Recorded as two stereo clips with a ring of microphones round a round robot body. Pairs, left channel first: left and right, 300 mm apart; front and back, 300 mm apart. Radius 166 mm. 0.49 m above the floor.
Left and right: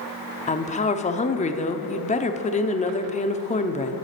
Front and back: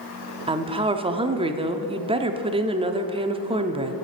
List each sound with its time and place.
0.5 s a woman speaking: 125° left, 0.7 m